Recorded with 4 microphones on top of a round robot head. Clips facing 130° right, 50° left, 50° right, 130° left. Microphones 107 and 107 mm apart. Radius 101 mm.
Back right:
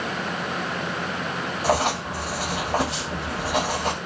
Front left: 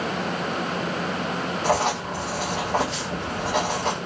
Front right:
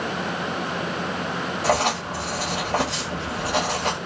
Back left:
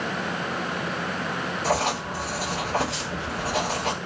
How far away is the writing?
About 1.5 m.